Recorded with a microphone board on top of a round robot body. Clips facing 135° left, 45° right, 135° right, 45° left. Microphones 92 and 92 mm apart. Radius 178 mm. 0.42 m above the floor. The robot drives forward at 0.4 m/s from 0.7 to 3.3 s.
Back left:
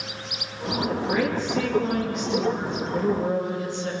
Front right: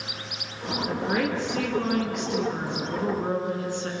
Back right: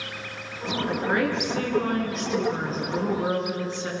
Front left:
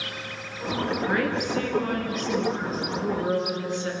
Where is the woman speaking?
70° right, 6 m; by 3.9 s 80° right, 6 m.